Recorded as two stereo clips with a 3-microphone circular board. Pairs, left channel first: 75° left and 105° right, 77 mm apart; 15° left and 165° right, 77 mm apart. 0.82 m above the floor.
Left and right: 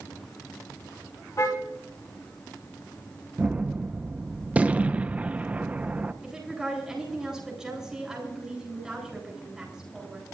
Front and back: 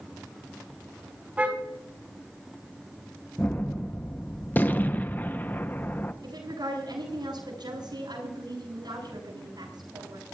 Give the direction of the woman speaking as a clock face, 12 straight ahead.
6 o'clock.